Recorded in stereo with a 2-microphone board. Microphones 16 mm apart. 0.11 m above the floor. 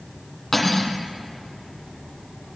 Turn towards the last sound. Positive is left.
turn(degrees=10)  # may be behind; listen again after turning